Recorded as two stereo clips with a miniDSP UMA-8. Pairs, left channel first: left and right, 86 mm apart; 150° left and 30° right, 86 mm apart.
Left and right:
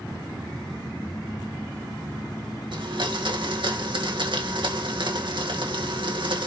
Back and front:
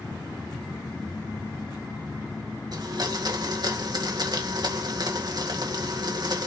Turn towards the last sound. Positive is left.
turn(degrees=-70)